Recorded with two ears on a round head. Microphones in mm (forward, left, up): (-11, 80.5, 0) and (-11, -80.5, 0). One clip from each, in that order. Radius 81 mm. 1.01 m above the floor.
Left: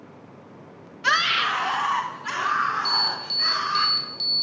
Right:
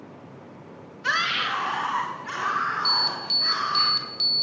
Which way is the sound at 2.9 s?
20° right (ahead or behind).